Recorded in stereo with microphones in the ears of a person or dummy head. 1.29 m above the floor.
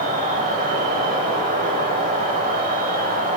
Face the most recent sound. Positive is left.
turn(degrees=-50)  # may be behind; listen again after turning